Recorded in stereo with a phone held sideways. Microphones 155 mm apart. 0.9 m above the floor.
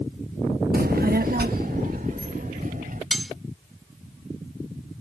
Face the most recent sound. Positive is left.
turn(degrees=0)  # may be behind; listen again after turning